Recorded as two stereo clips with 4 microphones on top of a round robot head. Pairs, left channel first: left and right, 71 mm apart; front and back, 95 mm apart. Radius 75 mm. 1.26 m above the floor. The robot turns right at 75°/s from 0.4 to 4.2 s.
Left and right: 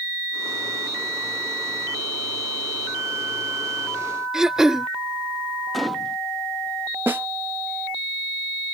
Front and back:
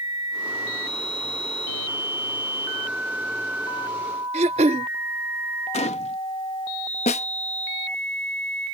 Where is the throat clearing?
170° right.